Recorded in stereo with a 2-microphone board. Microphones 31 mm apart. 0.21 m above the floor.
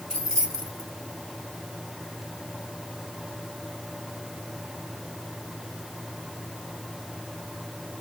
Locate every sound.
0.1 s keys jangling: 15° left (ahead or behind), 1.3 m